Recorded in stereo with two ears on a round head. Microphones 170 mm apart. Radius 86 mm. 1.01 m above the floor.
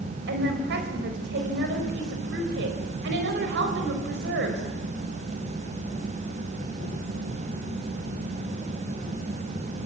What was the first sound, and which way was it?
A woman speaking, 60° right (ahead or behind).